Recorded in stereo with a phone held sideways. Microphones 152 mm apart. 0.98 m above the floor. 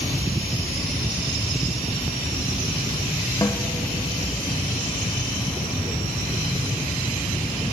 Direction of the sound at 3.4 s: 20° left (ahead or behind).